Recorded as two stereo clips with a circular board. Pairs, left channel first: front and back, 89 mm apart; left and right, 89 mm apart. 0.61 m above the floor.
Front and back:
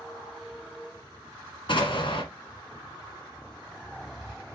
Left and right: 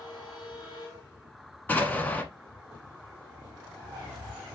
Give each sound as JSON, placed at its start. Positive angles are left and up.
{"t": 1.7, "sound": "an explosion", "azimuth_deg": 20, "distance_m": 1.5}